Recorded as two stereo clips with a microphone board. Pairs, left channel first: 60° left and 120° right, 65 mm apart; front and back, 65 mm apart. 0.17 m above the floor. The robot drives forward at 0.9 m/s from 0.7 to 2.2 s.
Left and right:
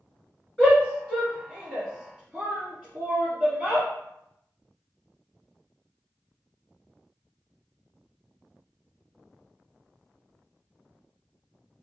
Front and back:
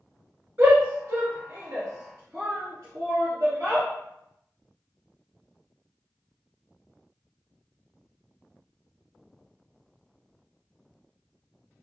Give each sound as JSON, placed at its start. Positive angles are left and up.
{"t": 0.6, "sound": "a shout", "azimuth_deg": 160, "distance_m": 1.3}